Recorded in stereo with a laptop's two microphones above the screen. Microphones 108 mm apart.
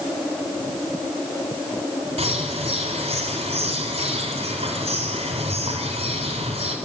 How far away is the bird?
About 4 m.